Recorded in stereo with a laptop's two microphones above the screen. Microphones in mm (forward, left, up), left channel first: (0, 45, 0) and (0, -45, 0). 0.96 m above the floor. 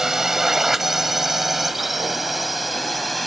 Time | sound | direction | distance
0.0 | a drone | 5° right (ahead or behind) | ?